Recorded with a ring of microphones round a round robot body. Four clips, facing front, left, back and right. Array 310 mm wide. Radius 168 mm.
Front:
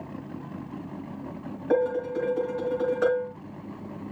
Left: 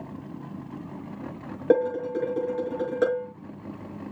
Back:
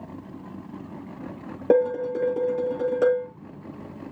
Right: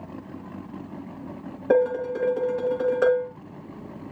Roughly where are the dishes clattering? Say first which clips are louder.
Right 1 dB, back 4 dB; behind left.